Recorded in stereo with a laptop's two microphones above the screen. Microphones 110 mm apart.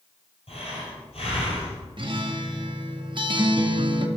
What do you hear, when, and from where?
0.5 s breathing: 60° left (ahead or behind), 4 m
2.0 s a guitar: 45° right (ahead or behind), 0.8 m